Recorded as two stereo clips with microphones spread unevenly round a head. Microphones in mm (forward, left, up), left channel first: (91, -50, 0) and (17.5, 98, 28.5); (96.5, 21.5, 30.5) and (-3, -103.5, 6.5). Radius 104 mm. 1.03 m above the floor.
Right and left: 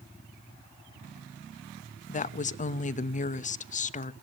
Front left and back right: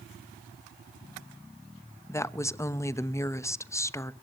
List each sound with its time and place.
2.1 s a woman speaking: 25° right, 1.0 m